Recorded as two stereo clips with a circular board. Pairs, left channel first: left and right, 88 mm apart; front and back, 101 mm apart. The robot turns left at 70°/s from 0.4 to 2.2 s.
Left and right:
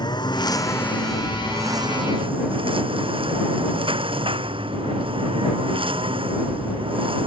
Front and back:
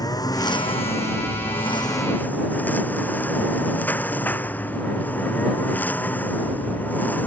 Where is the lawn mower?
50° left; by 7.3 s 75° right.